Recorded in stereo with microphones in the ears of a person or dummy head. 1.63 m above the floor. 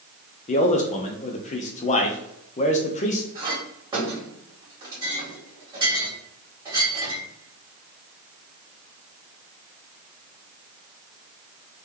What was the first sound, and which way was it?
A man speaking, 30° left (ahead or behind).